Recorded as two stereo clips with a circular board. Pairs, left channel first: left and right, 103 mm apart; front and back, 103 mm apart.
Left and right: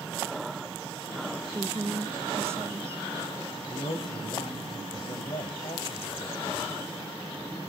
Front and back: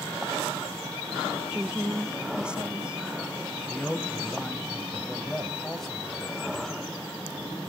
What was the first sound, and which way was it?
A woman speaking, 110° right.